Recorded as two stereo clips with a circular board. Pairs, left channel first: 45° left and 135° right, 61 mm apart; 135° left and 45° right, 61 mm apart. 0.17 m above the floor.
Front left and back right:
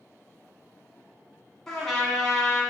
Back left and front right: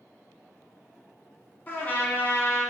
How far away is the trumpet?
About 0.8 m.